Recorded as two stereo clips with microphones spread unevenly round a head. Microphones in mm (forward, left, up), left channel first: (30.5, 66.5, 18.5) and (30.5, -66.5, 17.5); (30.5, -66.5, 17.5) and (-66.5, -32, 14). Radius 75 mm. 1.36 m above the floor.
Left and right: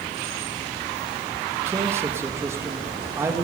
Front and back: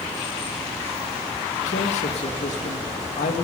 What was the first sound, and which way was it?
A man speaking, 20° right.